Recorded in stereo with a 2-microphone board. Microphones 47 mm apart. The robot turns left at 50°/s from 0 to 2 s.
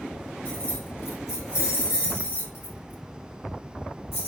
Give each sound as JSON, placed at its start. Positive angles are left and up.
{"t": 0.5, "sound": "keys jangling", "side_deg": 45, "distance_m": 2.5}